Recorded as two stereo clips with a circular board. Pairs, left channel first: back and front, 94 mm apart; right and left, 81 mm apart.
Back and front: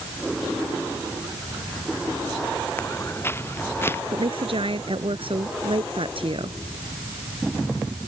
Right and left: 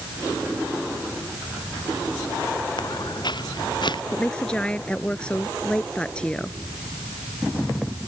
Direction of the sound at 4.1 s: 15° right.